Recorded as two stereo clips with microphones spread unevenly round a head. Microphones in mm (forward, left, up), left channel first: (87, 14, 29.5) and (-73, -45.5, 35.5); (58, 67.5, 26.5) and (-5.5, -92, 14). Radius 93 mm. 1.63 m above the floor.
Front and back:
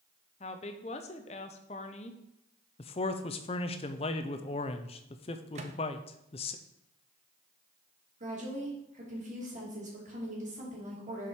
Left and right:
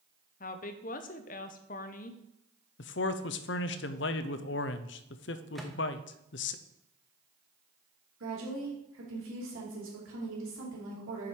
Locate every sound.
0.4 s a woman speaking: 70° left, 0.6 m
2.8 s a man speaking: 80° left, 0.5 m
5.5 s a microwave: 155° left, 0.6 m
8.2 s a woman speaking: 110° right, 3 m